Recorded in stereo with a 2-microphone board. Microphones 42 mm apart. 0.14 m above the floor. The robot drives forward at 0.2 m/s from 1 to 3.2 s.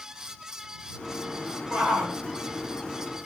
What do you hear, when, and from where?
1.7 s a shout: 35° right (ahead or behind), 1.6 m